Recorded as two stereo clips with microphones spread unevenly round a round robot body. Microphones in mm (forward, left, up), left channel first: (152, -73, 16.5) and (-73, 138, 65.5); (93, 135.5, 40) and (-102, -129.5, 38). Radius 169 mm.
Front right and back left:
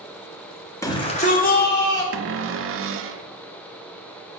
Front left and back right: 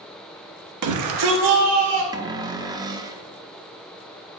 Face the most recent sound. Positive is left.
turn(degrees=165)